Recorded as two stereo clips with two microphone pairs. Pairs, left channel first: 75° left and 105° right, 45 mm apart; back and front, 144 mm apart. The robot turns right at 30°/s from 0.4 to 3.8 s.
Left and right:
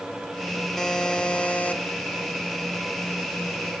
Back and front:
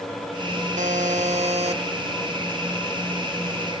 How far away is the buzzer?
About 1.4 m.